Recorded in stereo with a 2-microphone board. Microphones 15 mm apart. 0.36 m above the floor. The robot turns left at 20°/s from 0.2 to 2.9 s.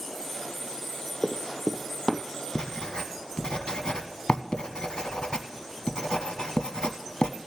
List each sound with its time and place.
1.2 s running footsteps: 10° right (ahead or behind), 0.6 m; by 2.2 s 10° left (ahead or behind), 0.6 m
2.5 s writing: 70° left (ahead or behind), 0.6 m; by 7.3 s 75° left (ahead or behind), 0.6 m